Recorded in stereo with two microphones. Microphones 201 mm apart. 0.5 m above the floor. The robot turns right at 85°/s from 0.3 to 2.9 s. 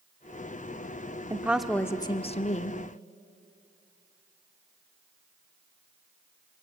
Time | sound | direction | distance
1.3 | a woman speaking | 25° right | 1.1 m